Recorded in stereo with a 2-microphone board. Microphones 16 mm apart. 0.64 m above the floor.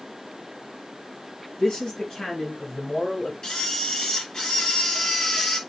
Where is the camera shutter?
60° left (ahead or behind), 3.5 m.